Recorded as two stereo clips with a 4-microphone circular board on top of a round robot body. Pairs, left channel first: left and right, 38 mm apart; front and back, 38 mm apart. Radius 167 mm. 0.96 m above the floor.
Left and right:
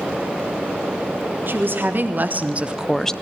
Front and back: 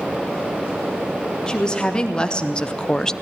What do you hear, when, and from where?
1.5 s a woman speaking: 70° right, 2 m; by 3.1 s 50° left, 0.8 m